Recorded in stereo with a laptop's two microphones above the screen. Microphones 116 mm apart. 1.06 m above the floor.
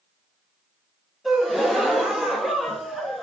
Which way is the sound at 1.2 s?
Centre (ahead or behind).